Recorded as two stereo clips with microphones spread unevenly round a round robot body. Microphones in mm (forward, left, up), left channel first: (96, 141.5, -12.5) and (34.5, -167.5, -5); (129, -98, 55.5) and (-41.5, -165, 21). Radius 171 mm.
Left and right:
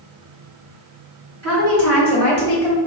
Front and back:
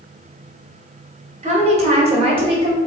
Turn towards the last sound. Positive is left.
turn(degrees=175)